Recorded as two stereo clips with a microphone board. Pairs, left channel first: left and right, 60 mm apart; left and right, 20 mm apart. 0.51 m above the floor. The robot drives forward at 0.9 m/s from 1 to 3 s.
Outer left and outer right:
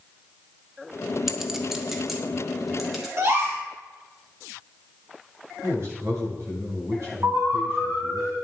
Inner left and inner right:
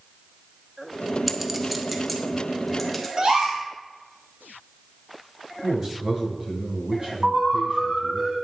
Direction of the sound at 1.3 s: 5° right (ahead or behind).